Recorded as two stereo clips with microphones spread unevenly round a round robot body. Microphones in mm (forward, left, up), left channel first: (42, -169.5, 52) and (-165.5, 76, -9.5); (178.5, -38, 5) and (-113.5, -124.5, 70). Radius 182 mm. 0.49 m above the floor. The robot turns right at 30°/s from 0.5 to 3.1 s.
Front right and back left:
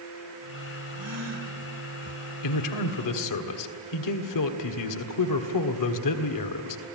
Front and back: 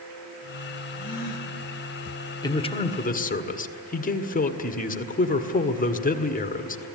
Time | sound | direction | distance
0.9 | a gasp | 105° left | 4 m
2.4 | a man speaking | 45° right | 1.7 m